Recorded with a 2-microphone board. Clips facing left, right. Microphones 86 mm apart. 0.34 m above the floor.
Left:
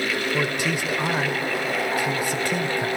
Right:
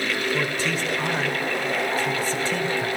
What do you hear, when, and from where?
0.3 s a man speaking: 15° left (ahead or behind), 0.8 m